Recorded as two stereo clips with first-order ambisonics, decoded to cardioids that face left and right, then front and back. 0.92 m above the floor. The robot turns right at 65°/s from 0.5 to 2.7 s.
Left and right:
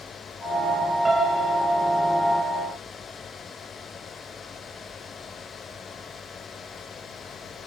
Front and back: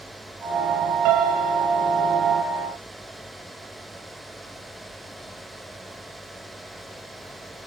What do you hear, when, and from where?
1.1 s a piano: 170° right, 3.5 m; by 1.6 s 130° right, 3.5 m